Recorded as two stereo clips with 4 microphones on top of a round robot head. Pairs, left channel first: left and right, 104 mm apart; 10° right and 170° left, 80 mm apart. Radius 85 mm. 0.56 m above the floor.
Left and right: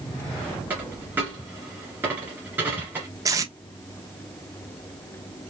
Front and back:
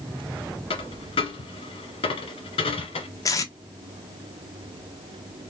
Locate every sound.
0.7 s a dropped coin: 15° right, 1.6 m
3.2 s tape being pulled: 40° right, 1.1 m